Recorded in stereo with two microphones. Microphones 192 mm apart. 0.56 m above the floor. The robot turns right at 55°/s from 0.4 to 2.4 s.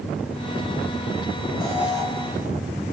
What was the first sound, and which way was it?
An alarm, 20° right (ahead or behind).